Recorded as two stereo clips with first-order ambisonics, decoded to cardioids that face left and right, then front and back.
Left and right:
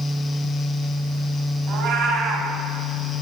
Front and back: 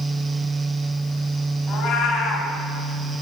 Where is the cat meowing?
65° right, 2.5 m.